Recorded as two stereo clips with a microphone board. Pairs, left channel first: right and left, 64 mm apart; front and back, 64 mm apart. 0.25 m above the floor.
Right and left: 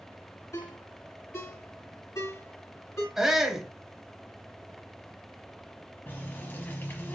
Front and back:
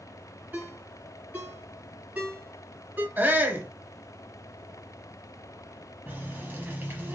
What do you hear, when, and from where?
0.5 s a ringtone: 120° right, 2 m
3.2 s a shout: 165° left, 1.0 m
6.1 s a running tap: 135° right, 1.1 m